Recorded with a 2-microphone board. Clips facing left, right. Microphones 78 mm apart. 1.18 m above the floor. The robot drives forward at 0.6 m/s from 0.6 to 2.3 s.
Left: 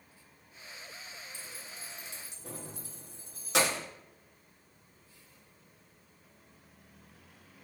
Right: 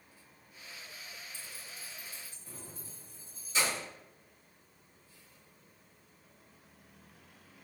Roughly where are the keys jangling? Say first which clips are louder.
Left 2 dB; left.